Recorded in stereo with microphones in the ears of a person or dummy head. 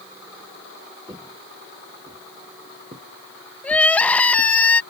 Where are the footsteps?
20° right (ahead or behind); by 4.5 s 45° right (ahead or behind).